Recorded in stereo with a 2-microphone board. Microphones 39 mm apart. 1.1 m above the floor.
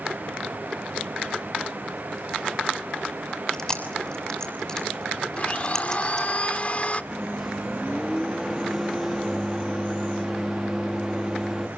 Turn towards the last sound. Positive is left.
turn(degrees=-5)  # may be behind; listen again after turning